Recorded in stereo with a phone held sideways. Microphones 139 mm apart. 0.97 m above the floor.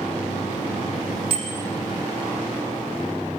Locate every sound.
1.3 s a bicycle bell: 40° right (ahead or behind), 4.5 m